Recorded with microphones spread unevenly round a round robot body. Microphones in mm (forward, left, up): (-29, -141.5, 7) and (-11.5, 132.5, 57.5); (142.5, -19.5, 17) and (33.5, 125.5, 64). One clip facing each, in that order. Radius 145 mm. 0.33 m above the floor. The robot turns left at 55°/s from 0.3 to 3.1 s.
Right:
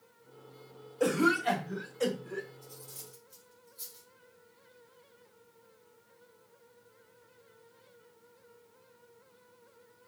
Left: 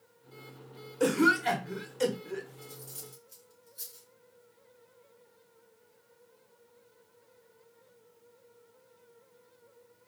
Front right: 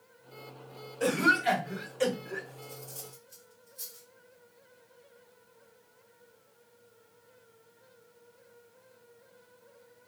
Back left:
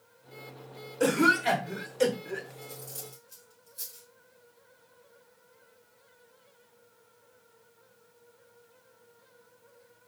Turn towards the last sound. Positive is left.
turn(degrees=100)